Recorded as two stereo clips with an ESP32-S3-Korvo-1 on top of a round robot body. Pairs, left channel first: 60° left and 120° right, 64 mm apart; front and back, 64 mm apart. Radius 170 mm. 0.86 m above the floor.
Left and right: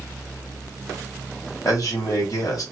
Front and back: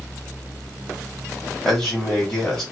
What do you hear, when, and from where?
1.6 s a man speaking: 85° left, 1.8 m